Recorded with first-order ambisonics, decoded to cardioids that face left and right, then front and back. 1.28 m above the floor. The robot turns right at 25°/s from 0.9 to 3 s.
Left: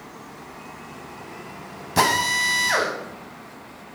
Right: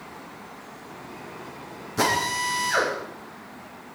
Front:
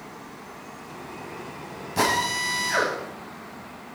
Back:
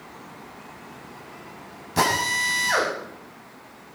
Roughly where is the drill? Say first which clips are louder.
Left 4 dB, back 2 dB; left.